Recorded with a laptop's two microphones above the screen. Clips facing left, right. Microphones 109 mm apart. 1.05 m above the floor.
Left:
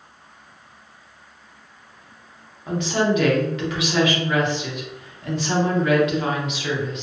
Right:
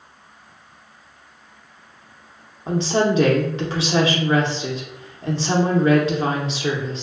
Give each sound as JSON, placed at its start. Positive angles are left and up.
{"t": 2.7, "sound": "a woman speaking", "side_deg": -30, "distance_m": 0.7}